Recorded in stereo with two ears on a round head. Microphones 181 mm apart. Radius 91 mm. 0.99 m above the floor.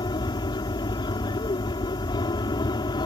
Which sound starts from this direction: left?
An aircraft, at 0.0 s.